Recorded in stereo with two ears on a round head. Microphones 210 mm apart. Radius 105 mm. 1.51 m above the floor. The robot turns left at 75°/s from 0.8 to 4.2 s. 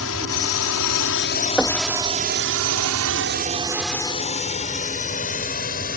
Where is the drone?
70° left (ahead or behind); by 6.0 s 40° left (ahead or behind).